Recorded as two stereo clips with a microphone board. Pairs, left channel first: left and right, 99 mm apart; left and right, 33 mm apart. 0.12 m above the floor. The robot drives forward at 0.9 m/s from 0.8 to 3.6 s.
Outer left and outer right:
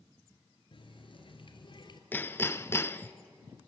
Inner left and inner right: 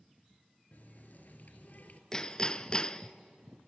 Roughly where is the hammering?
Centre.